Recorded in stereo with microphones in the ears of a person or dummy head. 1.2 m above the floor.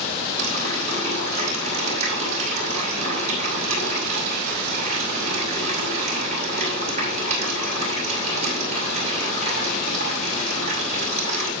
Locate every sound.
0.4 s a running tap: 45° right (ahead or behind), 6.5 m